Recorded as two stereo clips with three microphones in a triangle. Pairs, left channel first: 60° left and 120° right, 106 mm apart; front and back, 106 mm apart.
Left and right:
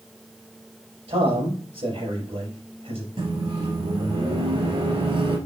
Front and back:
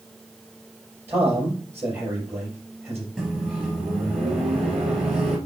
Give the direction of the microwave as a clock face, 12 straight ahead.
3 o'clock.